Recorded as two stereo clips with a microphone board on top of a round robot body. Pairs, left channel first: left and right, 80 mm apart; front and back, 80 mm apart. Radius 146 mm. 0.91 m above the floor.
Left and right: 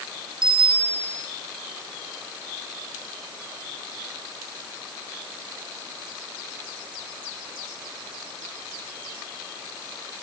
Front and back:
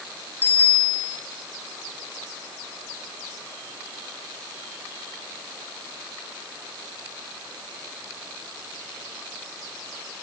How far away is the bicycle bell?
About 5.5 m.